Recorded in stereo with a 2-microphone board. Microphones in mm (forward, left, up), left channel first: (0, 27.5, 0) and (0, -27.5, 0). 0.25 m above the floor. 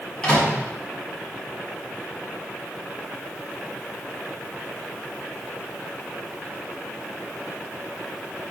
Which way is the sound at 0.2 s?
20° left (ahead or behind).